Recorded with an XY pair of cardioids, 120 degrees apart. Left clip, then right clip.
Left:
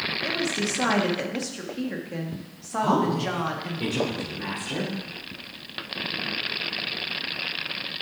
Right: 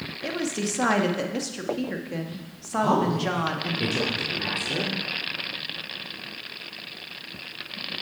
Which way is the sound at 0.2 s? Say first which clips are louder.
Left 3 dB; 15° right.